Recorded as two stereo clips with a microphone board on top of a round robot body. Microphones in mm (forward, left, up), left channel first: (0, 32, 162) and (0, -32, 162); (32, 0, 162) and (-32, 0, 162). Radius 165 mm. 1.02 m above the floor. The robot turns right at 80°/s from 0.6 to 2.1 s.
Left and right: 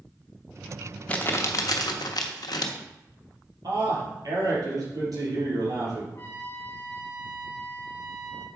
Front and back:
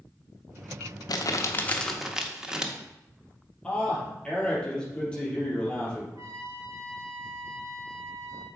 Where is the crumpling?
20° left, 0.7 m; by 2.7 s 100° left, 0.7 m.